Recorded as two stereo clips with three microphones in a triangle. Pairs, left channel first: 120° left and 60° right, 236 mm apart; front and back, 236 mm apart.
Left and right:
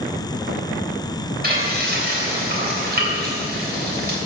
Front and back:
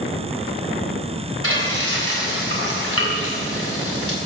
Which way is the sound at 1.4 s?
15° right.